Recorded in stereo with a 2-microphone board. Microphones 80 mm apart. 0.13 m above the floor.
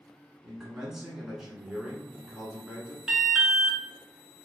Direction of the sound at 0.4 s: 10° right (ahead or behind).